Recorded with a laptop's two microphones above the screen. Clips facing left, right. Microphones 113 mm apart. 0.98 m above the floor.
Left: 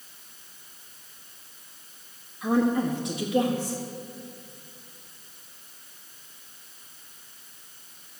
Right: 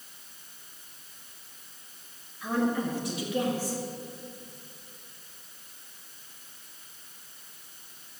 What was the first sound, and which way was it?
A woman speaking, 25° left (ahead or behind).